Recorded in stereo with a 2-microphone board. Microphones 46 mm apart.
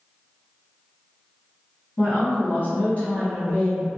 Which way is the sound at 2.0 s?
45° left (ahead or behind).